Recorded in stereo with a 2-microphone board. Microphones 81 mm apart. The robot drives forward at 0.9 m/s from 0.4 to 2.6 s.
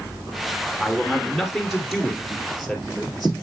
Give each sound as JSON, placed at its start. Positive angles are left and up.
{"t": 0.8, "sound": "a man speaking", "side_deg": 0, "distance_m": 1.8}